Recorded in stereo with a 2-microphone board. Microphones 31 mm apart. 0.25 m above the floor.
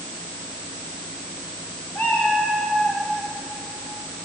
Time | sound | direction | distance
1.9 | a cat meowing | 80° left | 8 m